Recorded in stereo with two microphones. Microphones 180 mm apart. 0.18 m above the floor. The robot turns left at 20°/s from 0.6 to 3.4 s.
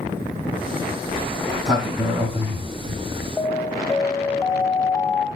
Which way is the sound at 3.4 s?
Centre (ahead or behind).